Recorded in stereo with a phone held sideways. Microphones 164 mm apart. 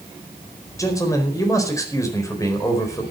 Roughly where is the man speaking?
Centre.